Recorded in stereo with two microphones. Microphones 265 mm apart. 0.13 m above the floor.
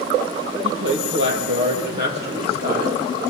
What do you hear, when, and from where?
0.6 s a woman speaking: 55° right (ahead or behind), 3 m; by 3.0 s 30° right (ahead or behind), 3 m